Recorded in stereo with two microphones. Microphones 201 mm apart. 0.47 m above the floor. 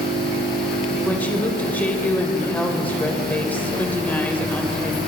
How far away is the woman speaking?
About 2 m.